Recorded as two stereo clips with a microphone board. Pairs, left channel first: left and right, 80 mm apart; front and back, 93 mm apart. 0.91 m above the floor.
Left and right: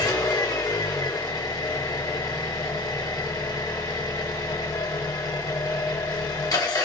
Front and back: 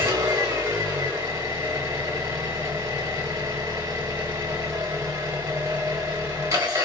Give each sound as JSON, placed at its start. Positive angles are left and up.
{"t": 0.0, "sound": "an engine running", "azimuth_deg": 125, "distance_m": 1.1}